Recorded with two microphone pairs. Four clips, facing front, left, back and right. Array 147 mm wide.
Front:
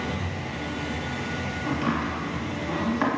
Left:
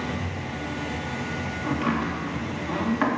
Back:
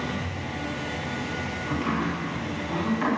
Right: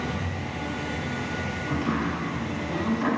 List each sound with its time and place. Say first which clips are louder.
1.6 s chopping: left 2 dB, front 1 dB; 60° left, 4 m